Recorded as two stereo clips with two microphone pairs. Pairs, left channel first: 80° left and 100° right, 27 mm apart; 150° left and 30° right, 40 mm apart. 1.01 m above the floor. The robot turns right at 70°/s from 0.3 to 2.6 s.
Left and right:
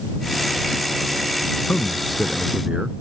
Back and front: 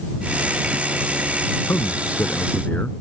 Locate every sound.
1.7 s a man speaking: 135° left; by 2.9 s 160° right